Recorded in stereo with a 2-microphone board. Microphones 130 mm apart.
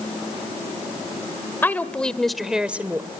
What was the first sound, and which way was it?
A woman speaking, 15° left (ahead or behind).